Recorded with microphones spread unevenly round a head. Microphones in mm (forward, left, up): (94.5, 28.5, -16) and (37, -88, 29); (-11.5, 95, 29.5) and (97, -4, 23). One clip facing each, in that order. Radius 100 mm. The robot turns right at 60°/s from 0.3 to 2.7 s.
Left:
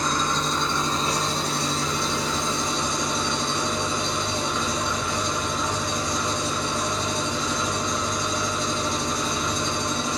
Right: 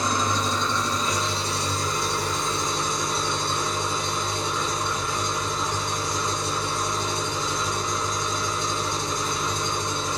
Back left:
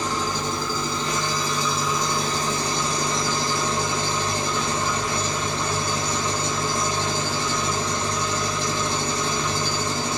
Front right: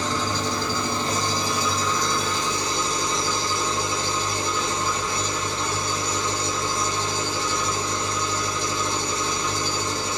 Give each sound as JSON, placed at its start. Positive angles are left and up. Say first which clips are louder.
{"t": 0.0, "sound": "an engine running", "louder": "even, even", "azimuth_deg": -40, "distance_m": 1.9}